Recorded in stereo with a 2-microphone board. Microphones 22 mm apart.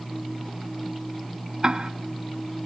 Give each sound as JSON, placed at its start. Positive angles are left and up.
{"t": 1.6, "sound": "ticking", "side_deg": -50, "distance_m": 0.9}